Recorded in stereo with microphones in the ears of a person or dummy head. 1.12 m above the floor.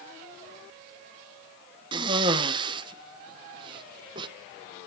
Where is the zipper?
No zipper in this recording.